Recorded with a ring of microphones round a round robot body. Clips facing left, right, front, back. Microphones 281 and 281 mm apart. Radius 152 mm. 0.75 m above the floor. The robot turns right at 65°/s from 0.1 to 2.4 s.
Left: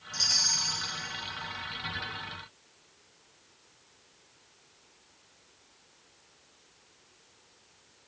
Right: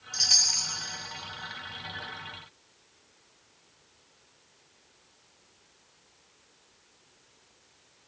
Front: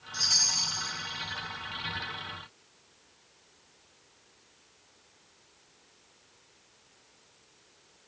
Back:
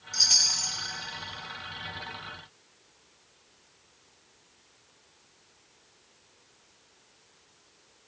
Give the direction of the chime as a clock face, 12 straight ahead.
6 o'clock.